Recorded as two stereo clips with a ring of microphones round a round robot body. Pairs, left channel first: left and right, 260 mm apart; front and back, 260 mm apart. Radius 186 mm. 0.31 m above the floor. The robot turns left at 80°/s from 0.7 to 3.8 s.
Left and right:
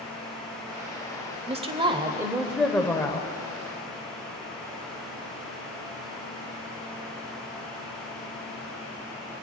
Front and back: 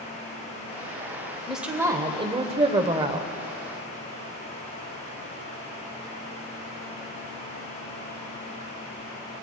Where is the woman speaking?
90° right, 1.0 m; by 3.3 s 125° left, 1.0 m.